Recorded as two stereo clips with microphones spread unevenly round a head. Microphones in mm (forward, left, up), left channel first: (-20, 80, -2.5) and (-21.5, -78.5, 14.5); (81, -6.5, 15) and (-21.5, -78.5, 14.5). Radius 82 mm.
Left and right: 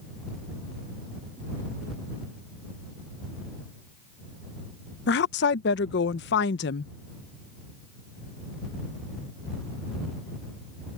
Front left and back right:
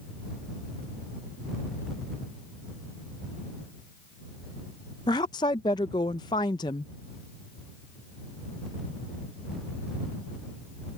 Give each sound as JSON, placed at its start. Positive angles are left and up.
{"t": 5.1, "sound": "a woman speaking", "azimuth_deg": 100}